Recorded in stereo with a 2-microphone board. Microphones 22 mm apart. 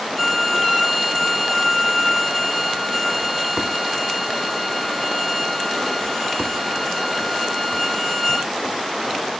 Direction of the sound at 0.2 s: 10° left (ahead or behind).